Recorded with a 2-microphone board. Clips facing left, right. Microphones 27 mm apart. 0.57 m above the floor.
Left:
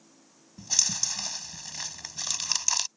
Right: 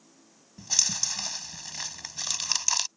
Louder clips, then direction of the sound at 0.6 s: Right 1 dB; 10° right (ahead or behind).